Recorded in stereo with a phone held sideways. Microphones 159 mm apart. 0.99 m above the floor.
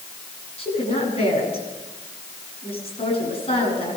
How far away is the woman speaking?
About 8.5 m.